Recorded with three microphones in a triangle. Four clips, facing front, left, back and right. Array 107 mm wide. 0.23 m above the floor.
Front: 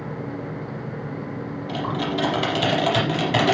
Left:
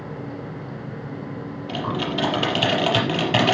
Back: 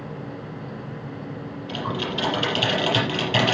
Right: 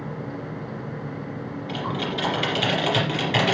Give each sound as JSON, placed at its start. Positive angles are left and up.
{"t": 1.7, "sound": "typing on a keyboard", "azimuth_deg": 80, "distance_m": 4.5}